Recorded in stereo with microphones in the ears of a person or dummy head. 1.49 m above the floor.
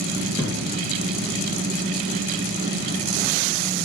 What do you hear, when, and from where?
0.4 s a thud: 10° left (ahead or behind), 2 m